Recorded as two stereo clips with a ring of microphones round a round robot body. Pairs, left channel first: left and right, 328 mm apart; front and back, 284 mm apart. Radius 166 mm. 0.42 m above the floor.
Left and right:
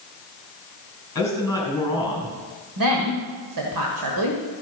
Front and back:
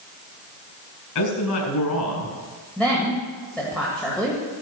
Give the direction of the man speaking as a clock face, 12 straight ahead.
12 o'clock.